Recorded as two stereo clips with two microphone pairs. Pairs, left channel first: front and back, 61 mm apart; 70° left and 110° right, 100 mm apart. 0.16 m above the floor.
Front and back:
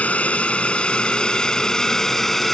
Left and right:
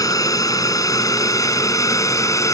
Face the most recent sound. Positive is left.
turn(degrees=85)